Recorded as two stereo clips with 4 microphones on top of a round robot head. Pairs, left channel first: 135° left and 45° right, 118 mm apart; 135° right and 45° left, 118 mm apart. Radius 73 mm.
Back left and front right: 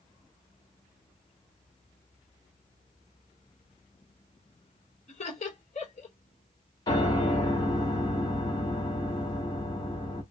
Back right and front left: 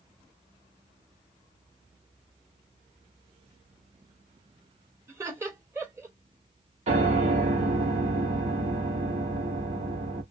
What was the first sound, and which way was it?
Laughter, 110° left.